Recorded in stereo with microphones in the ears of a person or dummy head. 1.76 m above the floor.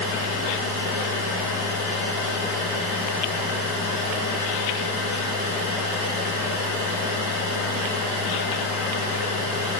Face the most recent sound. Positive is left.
turn(degrees=-25)  # may be behind; listen again after turning